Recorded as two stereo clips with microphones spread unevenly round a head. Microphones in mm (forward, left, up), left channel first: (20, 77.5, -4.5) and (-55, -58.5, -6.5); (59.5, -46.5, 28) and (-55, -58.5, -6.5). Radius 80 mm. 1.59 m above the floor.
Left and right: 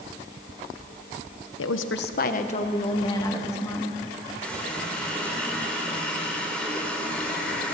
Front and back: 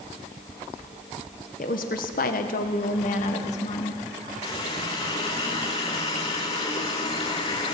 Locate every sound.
1.6 s a woman speaking: 55° left, 1.3 m; by 4.0 s 20° right, 3.5 m
4.4 s a running tap: 20° right, 3 m